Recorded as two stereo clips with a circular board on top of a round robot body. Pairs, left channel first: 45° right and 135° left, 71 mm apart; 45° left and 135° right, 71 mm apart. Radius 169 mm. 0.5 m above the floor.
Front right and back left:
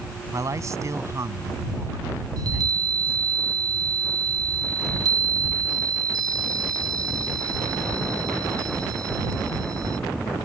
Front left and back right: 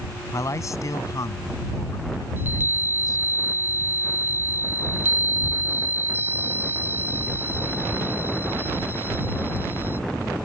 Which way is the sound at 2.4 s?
165° left.